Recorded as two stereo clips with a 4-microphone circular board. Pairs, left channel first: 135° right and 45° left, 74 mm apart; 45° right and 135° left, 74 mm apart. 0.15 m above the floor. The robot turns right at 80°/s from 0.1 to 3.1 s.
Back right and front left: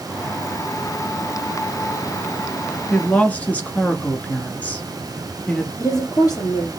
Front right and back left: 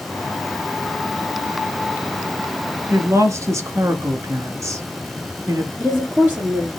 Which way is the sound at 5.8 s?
160° right.